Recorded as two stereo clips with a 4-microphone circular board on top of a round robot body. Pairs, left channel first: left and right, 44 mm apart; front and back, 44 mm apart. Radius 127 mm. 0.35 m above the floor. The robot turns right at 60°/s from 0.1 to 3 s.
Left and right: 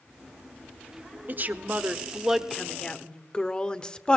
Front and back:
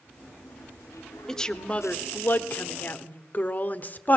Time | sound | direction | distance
1.3 | a woman speaking | 75° right | 1.1 m